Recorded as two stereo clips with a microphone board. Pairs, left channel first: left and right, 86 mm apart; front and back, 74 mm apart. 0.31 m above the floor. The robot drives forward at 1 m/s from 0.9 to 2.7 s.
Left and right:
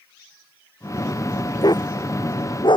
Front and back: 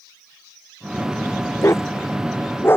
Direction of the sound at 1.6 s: 50° left.